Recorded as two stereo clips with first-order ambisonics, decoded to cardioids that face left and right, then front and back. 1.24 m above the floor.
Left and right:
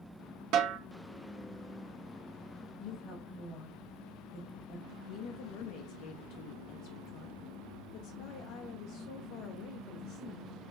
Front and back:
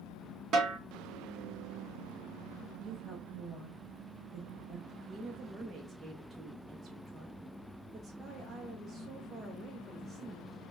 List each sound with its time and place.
0.5 s a snare drum: 125° right, 0.8 m
2.8 s a woman speaking: 100° left, 1.8 m
4.9 s a woman speaking: 105° left, 0.5 m